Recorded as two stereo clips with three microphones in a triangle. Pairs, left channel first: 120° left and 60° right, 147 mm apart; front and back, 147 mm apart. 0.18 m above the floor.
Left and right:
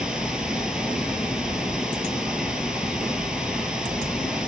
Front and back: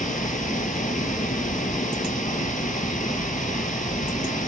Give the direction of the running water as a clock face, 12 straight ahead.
11 o'clock.